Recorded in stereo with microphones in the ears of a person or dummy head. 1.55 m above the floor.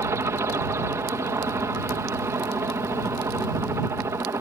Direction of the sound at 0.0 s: 15° right (ahead or behind).